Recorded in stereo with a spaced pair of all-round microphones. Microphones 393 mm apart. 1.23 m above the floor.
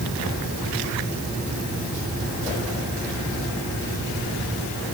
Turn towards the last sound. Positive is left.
No sound to turn to.